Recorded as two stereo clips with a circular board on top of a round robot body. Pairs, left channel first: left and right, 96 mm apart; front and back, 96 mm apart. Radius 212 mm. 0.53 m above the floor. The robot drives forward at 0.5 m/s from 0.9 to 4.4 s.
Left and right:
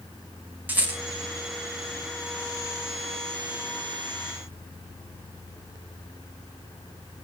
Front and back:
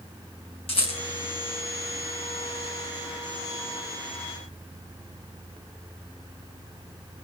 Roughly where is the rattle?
Ahead.